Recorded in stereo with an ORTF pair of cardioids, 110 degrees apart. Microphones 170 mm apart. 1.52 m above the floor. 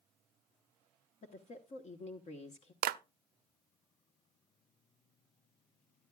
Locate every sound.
1.2 s a woman speaking: 40° left, 1.1 m
2.8 s a clap: 60° right, 0.6 m